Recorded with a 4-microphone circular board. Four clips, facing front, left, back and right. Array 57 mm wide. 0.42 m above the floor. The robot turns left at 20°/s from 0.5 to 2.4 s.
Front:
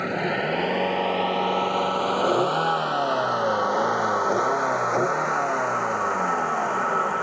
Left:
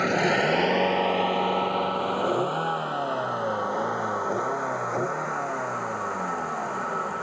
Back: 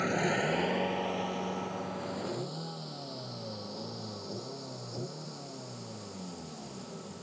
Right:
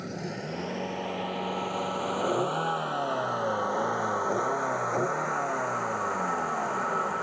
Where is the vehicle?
70° left; by 7.2 s 5° left.